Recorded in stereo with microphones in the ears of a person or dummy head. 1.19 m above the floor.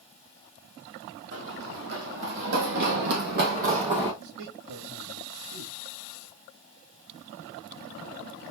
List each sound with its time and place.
1.3 s running footsteps: 70° right (ahead or behind), 3.5 m; by 4.1 s 20° right (ahead or behind), 1.8 m
4.2 s a man speaking: 75° right (ahead or behind), 3 m